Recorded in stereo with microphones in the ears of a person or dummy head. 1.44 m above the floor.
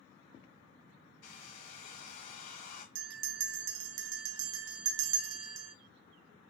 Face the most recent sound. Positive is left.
turn(degrees=-85)